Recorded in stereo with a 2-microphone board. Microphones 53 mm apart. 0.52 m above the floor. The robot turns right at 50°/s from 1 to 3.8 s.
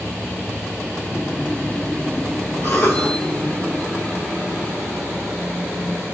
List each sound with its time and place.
2.6 s a cough: 50° left (ahead or behind), 2 m; by 3.1 s 35° left (ahead or behind), 2 m